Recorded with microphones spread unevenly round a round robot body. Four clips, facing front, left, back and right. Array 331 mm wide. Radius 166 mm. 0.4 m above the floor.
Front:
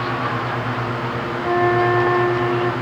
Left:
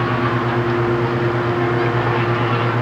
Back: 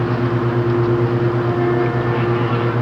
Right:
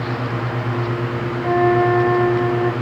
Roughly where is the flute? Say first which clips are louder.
Right 3 dB, front 1 dB; ahead right.